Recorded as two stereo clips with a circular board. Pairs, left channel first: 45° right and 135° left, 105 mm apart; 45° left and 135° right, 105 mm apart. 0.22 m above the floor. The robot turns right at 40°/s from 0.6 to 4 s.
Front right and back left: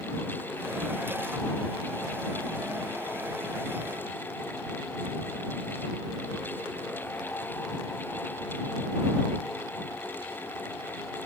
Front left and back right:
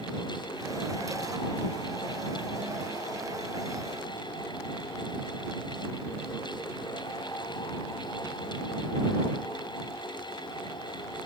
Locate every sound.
Only background noise.